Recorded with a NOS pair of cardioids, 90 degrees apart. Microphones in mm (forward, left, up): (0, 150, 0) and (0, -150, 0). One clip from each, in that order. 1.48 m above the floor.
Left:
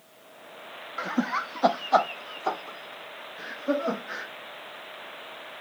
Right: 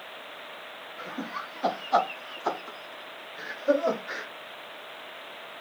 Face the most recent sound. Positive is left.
turn(degrees=-40)